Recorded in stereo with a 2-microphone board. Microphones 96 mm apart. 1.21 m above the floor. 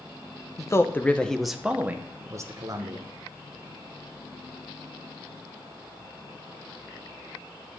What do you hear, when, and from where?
0.6 s a man speaking: 35° left (ahead or behind), 0.8 m; by 3.1 s 45° right (ahead or behind), 1.3 m